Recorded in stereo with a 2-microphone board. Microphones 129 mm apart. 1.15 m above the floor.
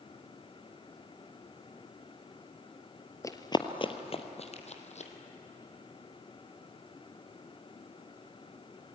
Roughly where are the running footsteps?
Left.